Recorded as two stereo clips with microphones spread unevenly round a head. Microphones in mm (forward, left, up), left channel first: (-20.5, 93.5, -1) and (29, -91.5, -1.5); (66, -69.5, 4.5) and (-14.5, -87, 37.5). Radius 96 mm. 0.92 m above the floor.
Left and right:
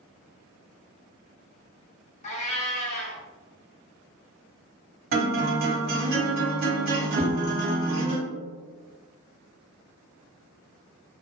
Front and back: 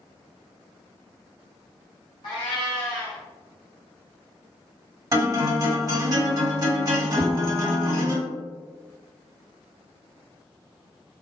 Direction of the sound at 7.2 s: 100° right.